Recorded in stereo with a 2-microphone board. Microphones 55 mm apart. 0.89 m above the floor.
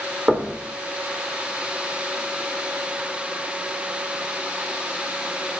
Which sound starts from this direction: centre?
Knocking, at 0.3 s.